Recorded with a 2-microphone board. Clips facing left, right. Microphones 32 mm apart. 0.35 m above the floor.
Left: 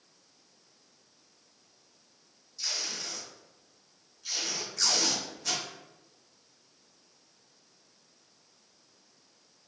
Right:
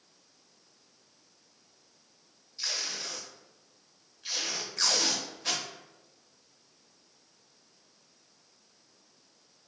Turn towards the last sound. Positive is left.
turn(degrees=-40)  # may be behind; listen again after turning